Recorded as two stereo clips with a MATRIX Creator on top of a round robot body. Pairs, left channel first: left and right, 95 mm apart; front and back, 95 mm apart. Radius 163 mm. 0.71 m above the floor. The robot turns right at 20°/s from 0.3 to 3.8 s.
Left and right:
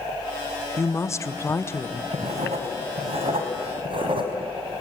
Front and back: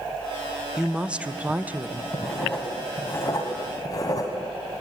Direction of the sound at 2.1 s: 90° right.